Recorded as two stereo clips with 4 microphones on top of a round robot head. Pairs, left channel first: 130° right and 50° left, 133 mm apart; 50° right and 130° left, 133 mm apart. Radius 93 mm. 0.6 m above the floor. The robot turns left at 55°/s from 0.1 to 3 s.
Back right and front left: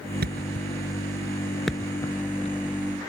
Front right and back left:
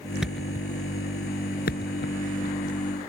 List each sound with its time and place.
0.2 s a thud: 40° left; by 2.5 s 85° right